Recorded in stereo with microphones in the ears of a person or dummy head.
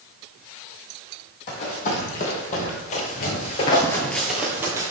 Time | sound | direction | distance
1.5 | running footsteps | 45° left (ahead or behind) | 3.5 m